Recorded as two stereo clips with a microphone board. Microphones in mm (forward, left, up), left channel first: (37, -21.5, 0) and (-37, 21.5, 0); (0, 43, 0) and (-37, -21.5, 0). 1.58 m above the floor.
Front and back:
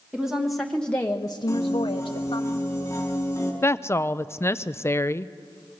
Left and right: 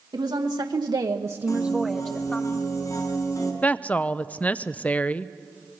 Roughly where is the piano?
Ahead left.